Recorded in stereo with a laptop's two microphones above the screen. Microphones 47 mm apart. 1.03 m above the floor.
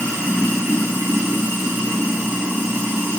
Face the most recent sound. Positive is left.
turn(degrees=-75)  # may be behind; listen again after turning